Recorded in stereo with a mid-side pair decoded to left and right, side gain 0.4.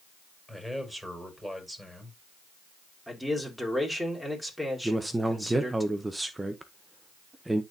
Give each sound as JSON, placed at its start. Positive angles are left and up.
{"t": 0.5, "sound": "a man speaking", "azimuth_deg": 0, "distance_m": 5.5}
{"t": 3.1, "sound": "a man speaking", "azimuth_deg": 0, "distance_m": 4.0}
{"t": 4.8, "sound": "a man speaking", "azimuth_deg": -15, "distance_m": 1.0}